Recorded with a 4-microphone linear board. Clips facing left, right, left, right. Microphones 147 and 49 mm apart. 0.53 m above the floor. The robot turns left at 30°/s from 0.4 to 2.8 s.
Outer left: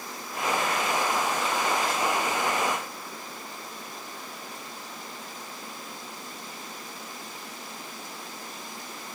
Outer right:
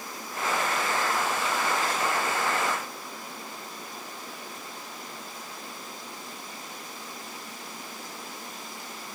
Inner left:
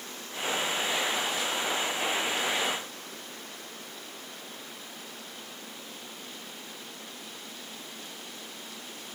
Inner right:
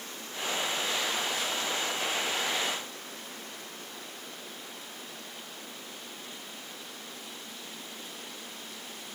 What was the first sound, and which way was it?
Only background noise.